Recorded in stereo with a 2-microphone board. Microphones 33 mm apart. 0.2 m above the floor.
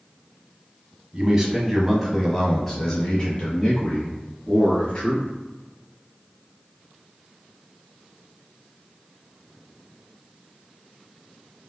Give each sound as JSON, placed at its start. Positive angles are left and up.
{"t": 1.1, "sound": "a man speaking", "side_deg": -25, "distance_m": 1.3}